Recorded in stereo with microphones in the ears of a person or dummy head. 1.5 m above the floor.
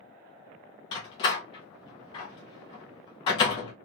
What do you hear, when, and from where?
0.9 s a door slam: 25° left (ahead or behind), 0.7 m